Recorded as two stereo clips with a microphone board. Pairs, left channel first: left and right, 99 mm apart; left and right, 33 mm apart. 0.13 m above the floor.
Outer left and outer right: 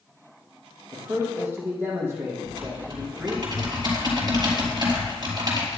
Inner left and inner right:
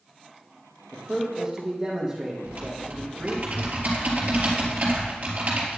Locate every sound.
0.9 s a man speaking: 25° right (ahead or behind), 4 m; by 3.4 s 15° right (ahead or behind), 5 m
2.5 s typing on a keyboard: 45° right (ahead or behind), 3.5 m